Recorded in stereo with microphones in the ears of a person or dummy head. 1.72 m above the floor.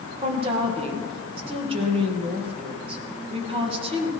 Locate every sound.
0.2 s a woman speaking: 35° right (ahead or behind), 2 m